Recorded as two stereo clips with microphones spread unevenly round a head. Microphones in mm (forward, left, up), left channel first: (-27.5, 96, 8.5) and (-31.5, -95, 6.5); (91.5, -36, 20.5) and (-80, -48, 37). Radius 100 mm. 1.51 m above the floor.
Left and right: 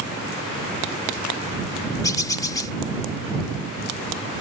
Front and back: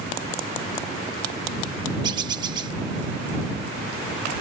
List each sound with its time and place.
2.0 s a bird: 145° left